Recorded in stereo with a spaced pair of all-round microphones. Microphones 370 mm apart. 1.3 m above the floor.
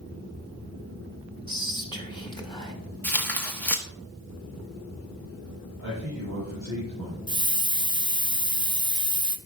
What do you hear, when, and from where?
1.5 s whispering: 15° left (ahead or behind), 2.5 m
3.0 s tearing paper: 5° left (ahead or behind), 1.2 m
5.8 s a man speaking: 45° right (ahead or behind), 5 m
7.3 s a hiss: 10° right (ahead or behind), 0.6 m